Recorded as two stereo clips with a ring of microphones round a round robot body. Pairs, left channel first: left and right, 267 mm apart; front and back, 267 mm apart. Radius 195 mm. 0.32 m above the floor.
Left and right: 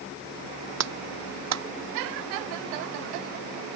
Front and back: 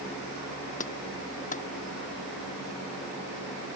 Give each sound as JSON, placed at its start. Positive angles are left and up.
{"t": 0.8, "sound": "a clap", "azimuth_deg": -70}